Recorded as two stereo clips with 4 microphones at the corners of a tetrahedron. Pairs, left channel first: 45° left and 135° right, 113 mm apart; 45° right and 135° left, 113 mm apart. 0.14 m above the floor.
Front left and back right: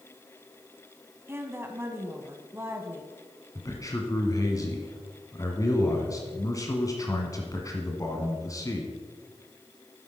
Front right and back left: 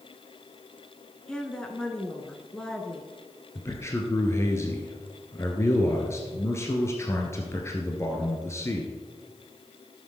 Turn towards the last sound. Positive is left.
turn(degrees=5)